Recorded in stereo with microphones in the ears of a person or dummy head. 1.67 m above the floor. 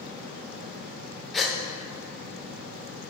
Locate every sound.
0.0 s a fan: 40° right (ahead or behind), 1.7 m
1.3 s a gasp: centre (ahead or behind), 1.1 m